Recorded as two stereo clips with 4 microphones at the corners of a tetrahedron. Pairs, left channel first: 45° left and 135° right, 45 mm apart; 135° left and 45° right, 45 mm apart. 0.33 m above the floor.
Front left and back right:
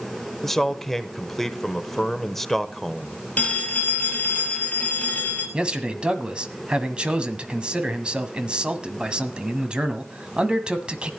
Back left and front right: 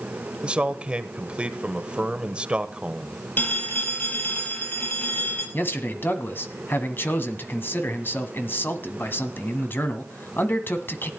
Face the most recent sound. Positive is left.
turn(degrees=160)